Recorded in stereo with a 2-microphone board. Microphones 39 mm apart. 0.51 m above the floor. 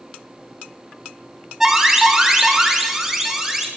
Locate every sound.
1.6 s an alarm: 10° right (ahead or behind), 1.5 m